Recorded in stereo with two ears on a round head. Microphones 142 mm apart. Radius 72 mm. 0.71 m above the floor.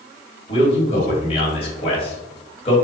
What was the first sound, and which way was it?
A man speaking, 35° left (ahead or behind).